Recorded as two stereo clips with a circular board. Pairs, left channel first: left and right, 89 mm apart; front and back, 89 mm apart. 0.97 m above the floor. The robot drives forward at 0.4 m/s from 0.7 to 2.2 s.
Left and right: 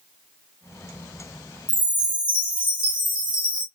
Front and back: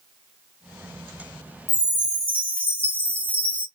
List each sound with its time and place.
1.7 s a chime: 65° right, 1.5 m; by 3.7 s 70° right, 1.4 m